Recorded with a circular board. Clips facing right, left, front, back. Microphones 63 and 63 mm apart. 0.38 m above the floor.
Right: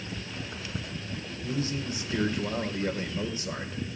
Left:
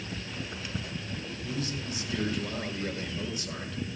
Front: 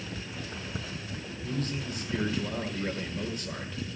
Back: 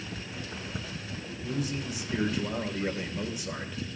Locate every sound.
1.4 s a man speaking: 105° right, 1.5 m